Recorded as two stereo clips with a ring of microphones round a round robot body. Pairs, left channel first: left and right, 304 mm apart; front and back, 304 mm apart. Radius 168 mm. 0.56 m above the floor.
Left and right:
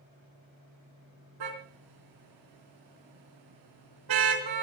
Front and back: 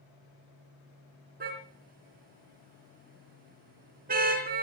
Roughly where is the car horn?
Behind right.